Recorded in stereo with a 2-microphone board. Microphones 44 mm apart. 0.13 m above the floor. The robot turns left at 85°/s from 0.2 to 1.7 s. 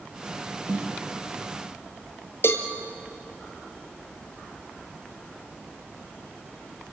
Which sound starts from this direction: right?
A snare drum, at 0.7 s.